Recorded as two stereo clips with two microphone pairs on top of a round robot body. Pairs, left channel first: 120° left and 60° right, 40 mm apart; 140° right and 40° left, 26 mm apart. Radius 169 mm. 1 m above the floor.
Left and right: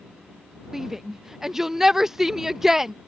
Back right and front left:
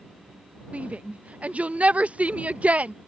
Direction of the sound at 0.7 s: 20° left.